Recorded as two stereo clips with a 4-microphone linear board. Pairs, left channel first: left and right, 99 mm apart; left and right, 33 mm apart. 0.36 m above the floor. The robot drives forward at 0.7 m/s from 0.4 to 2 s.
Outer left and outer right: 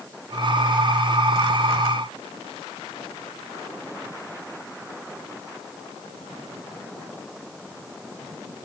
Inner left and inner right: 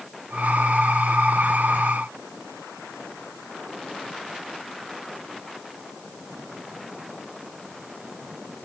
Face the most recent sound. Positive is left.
No sound to turn to.